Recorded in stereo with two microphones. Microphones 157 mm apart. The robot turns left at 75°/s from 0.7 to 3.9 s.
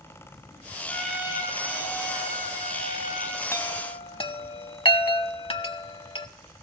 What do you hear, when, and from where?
0.9 s a trumpet: 15° left, 5.5 m; by 3.4 s 175° right, 5.5 m
3.5 s a chime: 15° left (ahead or behind), 0.7 m; by 6.3 s 35° left (ahead or behind), 0.7 m